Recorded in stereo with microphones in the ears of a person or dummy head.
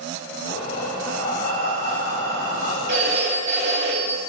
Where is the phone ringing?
55° right (ahead or behind), 1.6 m.